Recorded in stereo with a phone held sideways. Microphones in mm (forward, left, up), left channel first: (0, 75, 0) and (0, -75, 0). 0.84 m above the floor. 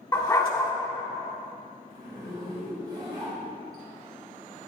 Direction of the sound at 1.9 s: 30° right (ahead or behind).